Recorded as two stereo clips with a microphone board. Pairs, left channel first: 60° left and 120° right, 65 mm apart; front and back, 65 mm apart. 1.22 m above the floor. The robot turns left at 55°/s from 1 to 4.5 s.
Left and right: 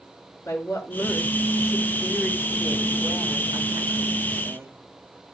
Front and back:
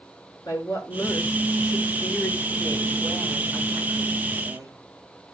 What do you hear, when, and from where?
0.5 s a woman speaking: 20° left, 6 m; by 4.7 s 170° right, 6 m